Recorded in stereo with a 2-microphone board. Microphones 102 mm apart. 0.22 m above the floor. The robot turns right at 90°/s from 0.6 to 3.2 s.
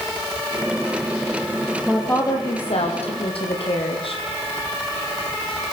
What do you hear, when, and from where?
1.9 s a woman speaking: 5° right, 6.5 m; by 4.2 s 115° left, 6.5 m